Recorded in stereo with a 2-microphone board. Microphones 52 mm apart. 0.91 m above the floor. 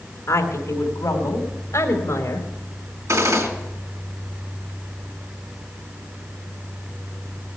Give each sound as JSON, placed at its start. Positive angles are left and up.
{"t": 0.3, "sound": "a woman speaking", "side_deg": 75, "distance_m": 3.5}
{"t": 3.1, "sound": "a gunshot", "side_deg": -75, "distance_m": 3.5}